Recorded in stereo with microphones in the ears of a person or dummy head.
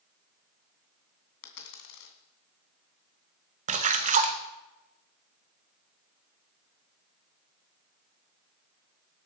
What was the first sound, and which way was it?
A dropped coin, 70° left (ahead or behind).